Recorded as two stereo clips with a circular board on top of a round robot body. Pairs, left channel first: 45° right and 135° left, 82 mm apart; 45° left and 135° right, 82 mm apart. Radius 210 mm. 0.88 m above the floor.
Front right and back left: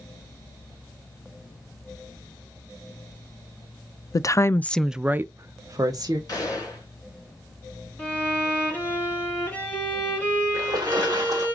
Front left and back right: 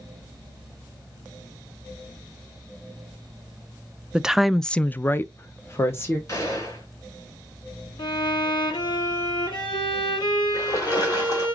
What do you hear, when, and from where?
4.1 s a woman speaking: 60° right, 0.6 m; by 6.2 s 100° left, 0.9 m
6.3 s a gunshot: straight ahead, 2.5 m
8.0 s a violin: 25° left, 2.5 m
10.5 s a splash: 90° left, 1.2 m